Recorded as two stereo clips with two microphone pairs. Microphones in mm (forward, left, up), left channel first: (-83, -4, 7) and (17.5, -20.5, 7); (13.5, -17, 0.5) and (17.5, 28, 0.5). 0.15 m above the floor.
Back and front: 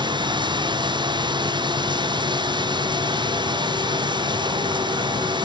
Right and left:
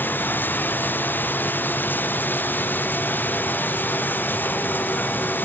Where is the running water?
50° right.